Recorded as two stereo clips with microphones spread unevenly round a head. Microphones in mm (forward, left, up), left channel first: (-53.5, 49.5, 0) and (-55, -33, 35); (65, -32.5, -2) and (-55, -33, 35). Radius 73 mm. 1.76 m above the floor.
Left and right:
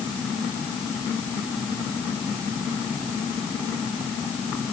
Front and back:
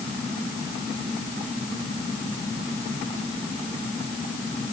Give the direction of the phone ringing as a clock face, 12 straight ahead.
No phone ringing in this recording.